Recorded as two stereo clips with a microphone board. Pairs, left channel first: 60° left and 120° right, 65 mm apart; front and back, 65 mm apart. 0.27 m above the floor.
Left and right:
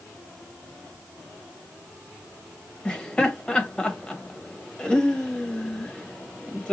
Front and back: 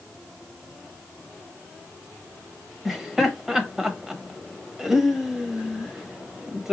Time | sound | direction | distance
2.9 | laughter | 110° left | 0.9 m